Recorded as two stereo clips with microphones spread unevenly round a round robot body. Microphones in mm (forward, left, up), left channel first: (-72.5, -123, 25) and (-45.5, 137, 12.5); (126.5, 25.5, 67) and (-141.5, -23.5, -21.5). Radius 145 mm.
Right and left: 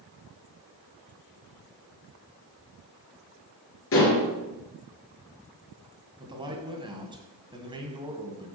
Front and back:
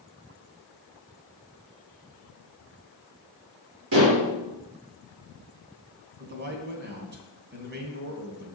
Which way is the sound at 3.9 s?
135° right.